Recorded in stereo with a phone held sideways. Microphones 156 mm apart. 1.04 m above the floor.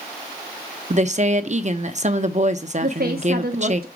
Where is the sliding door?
No sliding door in this recording.